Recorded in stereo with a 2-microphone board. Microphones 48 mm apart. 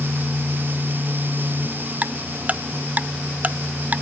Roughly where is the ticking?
Right.